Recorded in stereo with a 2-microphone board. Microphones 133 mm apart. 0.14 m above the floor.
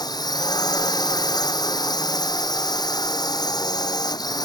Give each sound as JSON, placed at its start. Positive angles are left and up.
{"t": 0.0, "sound": "a drone", "side_deg": 30}